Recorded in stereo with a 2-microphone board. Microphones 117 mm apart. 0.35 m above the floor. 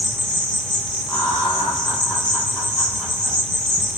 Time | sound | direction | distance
0.0 | an insect | 10° left (ahead or behind) | 1.4 m
1.1 | laughter | 15° left (ahead or behind) | 2 m